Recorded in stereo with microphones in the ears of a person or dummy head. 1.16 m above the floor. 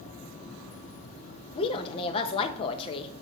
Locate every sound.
1.6 s a woman speaking: 30° left (ahead or behind), 0.9 m